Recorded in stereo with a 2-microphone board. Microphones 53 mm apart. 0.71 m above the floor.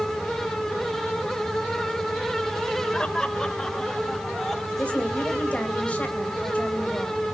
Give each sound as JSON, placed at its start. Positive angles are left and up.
{"t": 2.9, "sound": "laughter", "side_deg": 15, "distance_m": 2.5}
{"t": 4.8, "sound": "a woman speaking", "side_deg": 25, "distance_m": 4.0}